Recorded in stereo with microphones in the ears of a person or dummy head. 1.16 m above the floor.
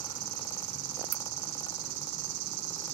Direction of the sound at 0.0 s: 60° right (ahead or behind).